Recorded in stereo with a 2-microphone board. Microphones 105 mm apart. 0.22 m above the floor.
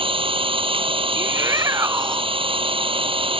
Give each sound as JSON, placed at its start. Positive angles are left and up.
{"t": 0.0, "sound": "an engine running", "side_deg": -60}
{"t": 1.2, "sound": "a shout", "side_deg": -30}